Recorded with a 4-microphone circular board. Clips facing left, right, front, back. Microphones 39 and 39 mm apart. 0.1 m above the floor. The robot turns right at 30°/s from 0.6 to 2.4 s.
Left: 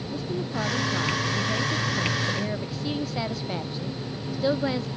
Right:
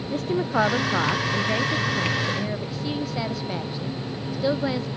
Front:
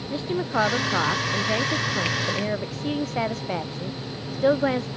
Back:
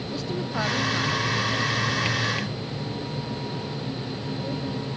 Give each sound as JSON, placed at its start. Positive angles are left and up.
{"t": 0.1, "sound": "a woman speaking", "azimuth_deg": -55}